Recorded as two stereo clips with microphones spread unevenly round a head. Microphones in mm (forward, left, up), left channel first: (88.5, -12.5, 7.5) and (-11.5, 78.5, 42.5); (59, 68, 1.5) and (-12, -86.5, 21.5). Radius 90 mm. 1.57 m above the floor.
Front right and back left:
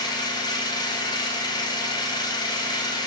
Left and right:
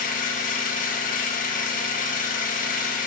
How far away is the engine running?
About 1.6 m.